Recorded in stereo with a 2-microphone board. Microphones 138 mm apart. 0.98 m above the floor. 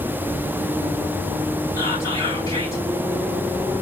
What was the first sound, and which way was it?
Whispering, 25° left (ahead or behind).